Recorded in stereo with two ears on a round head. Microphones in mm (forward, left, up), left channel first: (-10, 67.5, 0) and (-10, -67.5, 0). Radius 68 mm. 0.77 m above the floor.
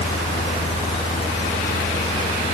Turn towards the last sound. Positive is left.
No sound to turn to.